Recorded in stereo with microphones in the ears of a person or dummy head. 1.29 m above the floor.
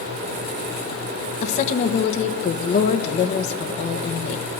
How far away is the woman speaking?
About 1.4 m.